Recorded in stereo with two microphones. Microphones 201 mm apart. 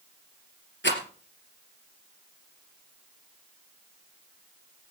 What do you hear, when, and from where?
0.8 s a rattle: 65° left (ahead or behind), 3 m